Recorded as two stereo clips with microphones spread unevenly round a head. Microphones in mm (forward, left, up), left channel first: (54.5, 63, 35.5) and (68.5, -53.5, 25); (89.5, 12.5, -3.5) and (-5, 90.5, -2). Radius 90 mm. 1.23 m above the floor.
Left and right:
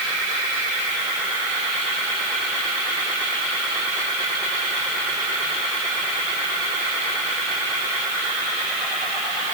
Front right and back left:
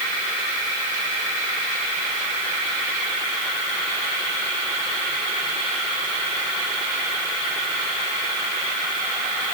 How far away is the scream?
No scream in this recording.